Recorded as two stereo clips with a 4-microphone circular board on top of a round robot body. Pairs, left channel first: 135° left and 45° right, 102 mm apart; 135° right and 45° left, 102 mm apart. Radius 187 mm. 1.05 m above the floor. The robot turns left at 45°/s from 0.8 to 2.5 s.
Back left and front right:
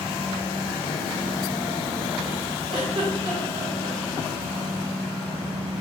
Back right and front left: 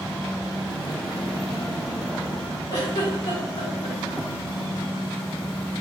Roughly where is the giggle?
Right.